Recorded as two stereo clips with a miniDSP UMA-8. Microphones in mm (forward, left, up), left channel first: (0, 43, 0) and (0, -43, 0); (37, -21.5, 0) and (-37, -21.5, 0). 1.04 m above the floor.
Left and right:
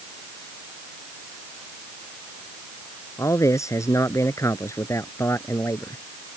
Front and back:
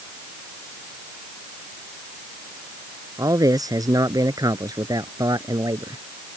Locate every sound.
3.2 s a man speaking: 145° left; by 6.0 s 150° left